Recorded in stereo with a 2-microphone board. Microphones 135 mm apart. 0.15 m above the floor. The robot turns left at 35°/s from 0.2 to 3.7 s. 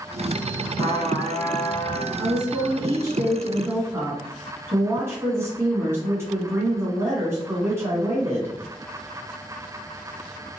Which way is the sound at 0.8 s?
125° left.